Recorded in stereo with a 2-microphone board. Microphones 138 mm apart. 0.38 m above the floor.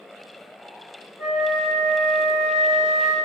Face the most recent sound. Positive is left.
turn(degrees=-5)  # may be behind; listen again after turning